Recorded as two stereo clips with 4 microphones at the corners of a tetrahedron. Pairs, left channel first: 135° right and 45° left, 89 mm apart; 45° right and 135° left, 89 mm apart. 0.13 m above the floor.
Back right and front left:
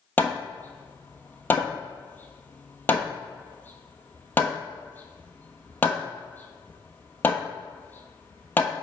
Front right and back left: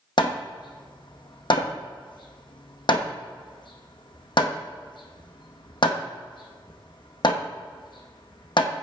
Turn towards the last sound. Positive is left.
turn(degrees=-65)